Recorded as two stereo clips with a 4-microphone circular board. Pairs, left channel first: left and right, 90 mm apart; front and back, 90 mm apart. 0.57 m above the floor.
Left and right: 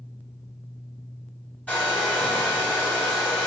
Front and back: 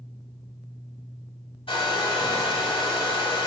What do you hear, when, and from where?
1.7 s a hair dryer: 15° left, 1.0 m